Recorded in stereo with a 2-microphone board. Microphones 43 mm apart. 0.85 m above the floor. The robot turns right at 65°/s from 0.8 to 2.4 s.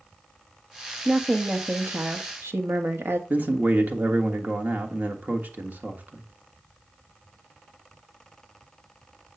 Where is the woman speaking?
170° right, 1.2 m; by 3.2 s 85° right, 1.2 m.